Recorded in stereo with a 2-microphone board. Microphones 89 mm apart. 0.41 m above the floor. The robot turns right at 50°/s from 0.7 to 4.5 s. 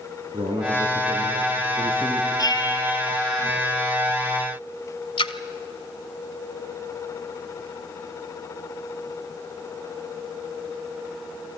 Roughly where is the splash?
Left.